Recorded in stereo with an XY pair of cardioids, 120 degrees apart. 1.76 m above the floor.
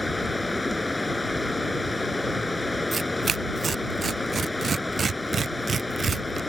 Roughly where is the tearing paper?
Ahead right.